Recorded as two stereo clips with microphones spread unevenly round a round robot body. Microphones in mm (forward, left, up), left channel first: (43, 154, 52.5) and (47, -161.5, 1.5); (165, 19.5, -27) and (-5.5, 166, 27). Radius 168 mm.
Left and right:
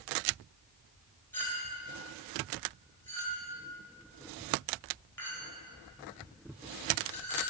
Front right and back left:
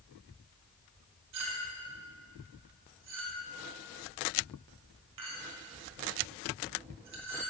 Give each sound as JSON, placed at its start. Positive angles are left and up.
{"t": 1.3, "sound": "a clink", "azimuth_deg": 180, "distance_m": 1.4}